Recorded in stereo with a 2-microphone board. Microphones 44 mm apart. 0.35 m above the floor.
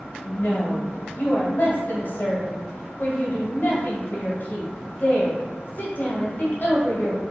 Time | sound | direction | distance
0.2 | a woman speaking | 50° left (ahead or behind) | 1.6 m